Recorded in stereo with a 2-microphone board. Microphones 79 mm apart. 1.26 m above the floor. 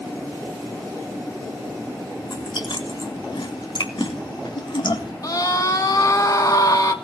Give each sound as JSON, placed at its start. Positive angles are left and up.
{"t": 2.2, "sound": "chewing", "side_deg": 75, "distance_m": 3.5}
{"t": 5.2, "sound": "a scream", "side_deg": 50, "distance_m": 2.5}